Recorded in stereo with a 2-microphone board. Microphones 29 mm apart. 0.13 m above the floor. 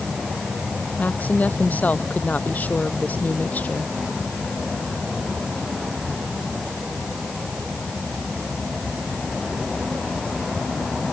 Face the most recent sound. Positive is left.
turn(degrees=65)  # may be behind; listen again after turning